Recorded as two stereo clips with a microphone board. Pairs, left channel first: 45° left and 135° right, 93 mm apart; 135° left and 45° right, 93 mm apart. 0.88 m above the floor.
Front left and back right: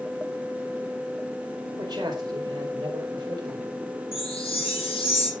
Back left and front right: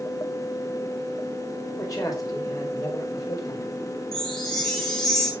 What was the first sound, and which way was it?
A man speaking, 175° right.